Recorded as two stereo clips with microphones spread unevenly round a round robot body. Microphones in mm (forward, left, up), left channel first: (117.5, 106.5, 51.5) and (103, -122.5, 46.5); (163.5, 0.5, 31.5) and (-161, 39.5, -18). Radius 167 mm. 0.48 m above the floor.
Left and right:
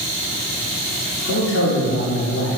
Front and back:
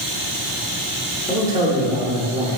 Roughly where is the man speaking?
Left.